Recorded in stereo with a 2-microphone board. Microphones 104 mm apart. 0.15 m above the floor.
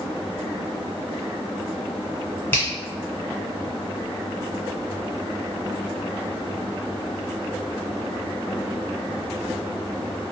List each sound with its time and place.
2.5 s a finger snap: 20° left (ahead or behind), 1.3 m